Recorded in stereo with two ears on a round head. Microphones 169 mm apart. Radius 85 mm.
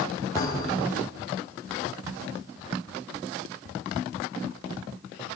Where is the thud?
20° left (ahead or behind), 6.5 m.